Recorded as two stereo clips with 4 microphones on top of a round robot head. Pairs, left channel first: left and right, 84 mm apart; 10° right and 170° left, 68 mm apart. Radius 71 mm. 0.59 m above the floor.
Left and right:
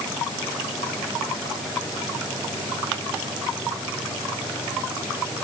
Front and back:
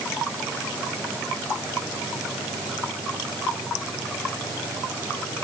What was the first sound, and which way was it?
Only background noise.